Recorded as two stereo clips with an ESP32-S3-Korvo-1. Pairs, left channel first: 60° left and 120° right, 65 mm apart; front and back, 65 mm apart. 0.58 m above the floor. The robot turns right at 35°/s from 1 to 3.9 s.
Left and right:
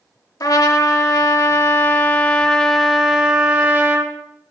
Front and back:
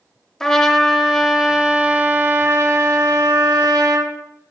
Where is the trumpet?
80° left, 0.7 m; by 4.1 s 175° right, 0.7 m.